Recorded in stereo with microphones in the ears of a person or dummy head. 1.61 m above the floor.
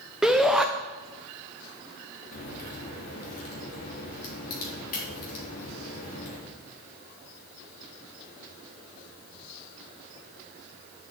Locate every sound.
0.2 s a shout: 5° right (ahead or behind), 0.7 m
2.3 s a crack: 50° left (ahead or behind), 4 m